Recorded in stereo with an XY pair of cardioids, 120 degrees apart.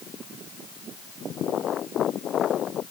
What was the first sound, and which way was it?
Only background noise.